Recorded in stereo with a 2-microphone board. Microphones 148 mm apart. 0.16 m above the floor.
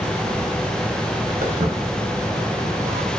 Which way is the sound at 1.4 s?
75° right (ahead or behind).